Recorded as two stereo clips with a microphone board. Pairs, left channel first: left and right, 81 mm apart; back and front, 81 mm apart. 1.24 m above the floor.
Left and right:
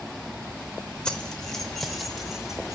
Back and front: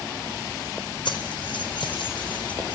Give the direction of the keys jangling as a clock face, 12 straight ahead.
6 o'clock.